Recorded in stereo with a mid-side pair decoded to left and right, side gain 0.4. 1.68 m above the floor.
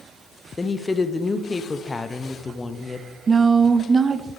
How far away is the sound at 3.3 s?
About 0.7 m.